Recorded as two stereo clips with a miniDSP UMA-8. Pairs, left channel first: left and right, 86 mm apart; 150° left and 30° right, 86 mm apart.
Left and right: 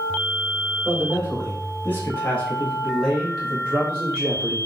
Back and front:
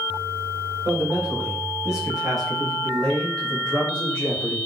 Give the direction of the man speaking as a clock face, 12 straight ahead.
11 o'clock.